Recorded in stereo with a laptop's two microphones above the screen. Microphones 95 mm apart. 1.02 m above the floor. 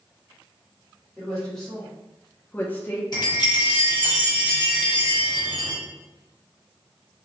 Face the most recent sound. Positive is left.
turn(degrees=50)  # may be behind; listen again after turning